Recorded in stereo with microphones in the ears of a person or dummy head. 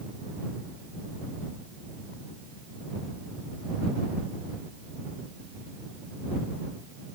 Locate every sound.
Only background noise.